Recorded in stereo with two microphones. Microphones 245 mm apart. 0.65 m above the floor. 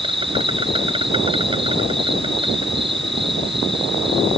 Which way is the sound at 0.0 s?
20° right (ahead or behind).